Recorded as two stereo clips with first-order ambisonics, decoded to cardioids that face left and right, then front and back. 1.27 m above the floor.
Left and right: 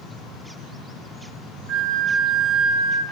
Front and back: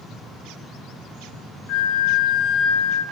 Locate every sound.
1.7 s a flute: 40° right, 2.5 m